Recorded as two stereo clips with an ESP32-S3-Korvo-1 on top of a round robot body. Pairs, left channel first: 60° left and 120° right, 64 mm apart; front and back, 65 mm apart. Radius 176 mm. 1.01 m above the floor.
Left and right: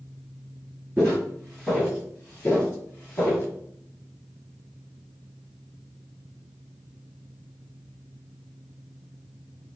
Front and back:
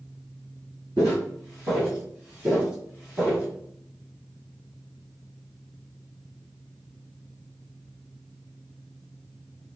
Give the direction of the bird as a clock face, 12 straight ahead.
No bird in this recording.